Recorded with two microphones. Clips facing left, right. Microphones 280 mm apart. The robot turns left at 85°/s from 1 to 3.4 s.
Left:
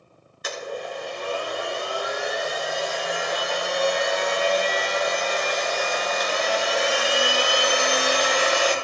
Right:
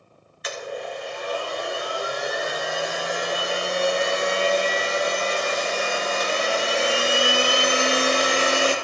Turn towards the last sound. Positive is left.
turn(degrees=-150)